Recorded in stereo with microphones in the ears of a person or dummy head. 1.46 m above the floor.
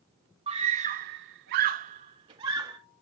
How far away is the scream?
About 1.6 m.